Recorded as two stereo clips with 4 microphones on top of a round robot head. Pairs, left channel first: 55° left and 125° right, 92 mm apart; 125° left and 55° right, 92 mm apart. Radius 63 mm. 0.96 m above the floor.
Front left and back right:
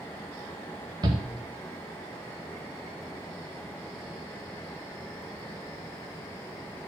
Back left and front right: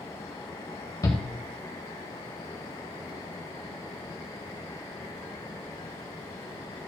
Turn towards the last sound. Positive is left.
turn(degrees=-175)